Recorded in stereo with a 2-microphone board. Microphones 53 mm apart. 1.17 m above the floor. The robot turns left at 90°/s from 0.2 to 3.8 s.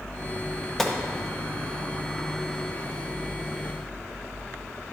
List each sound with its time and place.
0.8 s a gunshot: 5° left (ahead or behind), 0.6 m; by 1.0 s 15° right (ahead or behind), 0.6 m